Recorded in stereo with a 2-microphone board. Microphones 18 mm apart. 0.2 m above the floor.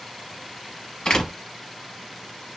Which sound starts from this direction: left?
A door slam, at 1.1 s.